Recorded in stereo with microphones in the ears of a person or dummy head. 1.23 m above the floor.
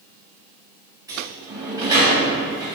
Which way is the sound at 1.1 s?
15° right (ahead or behind).